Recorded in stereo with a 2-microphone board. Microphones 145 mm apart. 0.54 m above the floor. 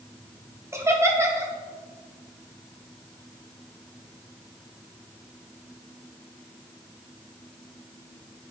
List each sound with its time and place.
0.7 s laughter: 20° right (ahead or behind), 0.8 m